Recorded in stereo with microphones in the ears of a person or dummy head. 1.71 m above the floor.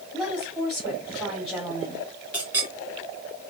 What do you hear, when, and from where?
0.1 s a woman speaking: centre (ahead or behind), 2.5 m
2.3 s a clink: 10° right (ahead or behind), 2.5 m